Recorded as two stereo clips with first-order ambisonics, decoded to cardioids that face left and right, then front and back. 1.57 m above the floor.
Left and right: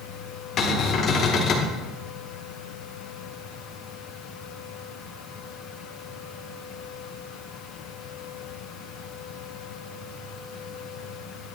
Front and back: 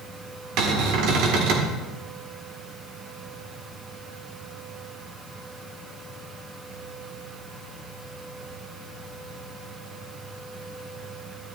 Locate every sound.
0.6 s a cupboard door: 150° left, 1.9 m